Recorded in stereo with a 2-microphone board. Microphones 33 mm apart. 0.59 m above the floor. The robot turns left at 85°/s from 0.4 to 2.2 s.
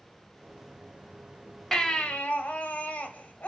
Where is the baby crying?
175° left, 1.3 m; by 3.5 s 135° left, 1.3 m.